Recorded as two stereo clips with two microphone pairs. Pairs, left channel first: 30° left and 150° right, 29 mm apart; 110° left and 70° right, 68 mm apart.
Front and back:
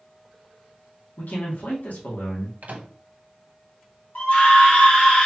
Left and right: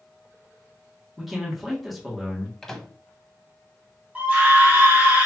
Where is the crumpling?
No crumpling in this recording.